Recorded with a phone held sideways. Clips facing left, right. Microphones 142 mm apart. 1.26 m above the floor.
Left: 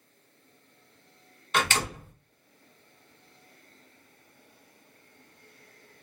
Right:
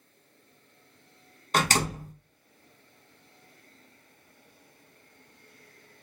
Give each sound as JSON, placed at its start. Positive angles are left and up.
{"t": 1.5, "sound": "a door slam", "side_deg": -40, "distance_m": 0.8}